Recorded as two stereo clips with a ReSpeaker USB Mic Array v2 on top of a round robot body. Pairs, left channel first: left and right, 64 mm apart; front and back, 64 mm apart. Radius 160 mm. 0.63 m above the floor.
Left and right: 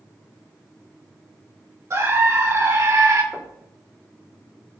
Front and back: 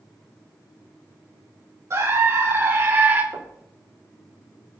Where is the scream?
135° right, 3 m; by 3.2 s 125° right, 3.5 m.